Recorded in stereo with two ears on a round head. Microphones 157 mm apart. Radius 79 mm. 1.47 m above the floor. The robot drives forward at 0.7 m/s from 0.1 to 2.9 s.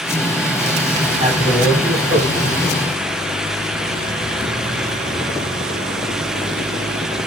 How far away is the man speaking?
About 9.5 m.